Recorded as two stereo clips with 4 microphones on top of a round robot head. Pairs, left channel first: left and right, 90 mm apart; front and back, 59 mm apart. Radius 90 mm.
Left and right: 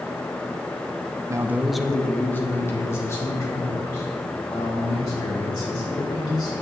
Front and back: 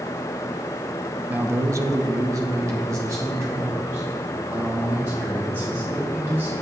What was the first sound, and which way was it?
A man speaking, 125° right.